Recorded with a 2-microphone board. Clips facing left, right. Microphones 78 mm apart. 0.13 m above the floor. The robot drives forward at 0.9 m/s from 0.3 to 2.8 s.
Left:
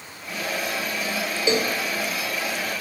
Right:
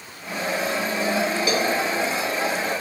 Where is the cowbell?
25° left (ahead or behind), 1.0 m; by 1.8 s 35° left (ahead or behind), 0.7 m.